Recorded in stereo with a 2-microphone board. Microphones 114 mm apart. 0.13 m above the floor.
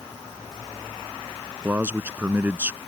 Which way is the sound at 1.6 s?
15° right (ahead or behind).